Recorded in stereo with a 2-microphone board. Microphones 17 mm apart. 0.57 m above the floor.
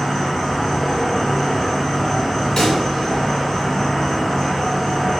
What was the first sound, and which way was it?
An insect, 15° left (ahead or behind).